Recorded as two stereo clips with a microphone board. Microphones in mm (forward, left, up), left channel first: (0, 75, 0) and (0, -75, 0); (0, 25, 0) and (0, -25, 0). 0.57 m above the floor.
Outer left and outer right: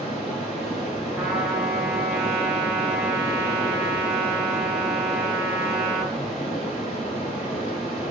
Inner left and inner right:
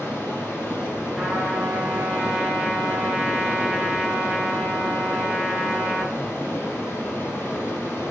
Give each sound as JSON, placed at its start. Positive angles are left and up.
{"t": 0.0, "sound": "running water", "side_deg": 45, "distance_m": 4.0}
{"t": 1.2, "sound": "a trumpet", "side_deg": -10, "distance_m": 1.9}